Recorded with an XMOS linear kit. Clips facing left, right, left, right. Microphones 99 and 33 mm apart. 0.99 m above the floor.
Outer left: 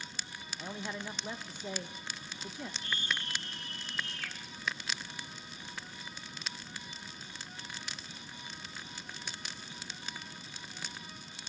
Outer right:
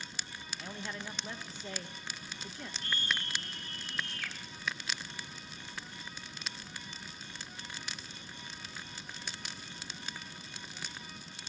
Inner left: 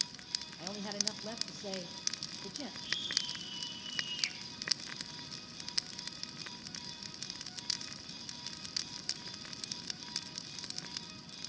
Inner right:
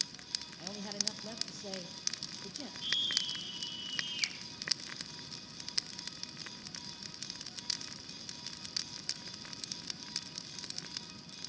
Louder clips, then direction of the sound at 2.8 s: Outer right 2 dB, inner right 5 dB; 55° right (ahead or behind).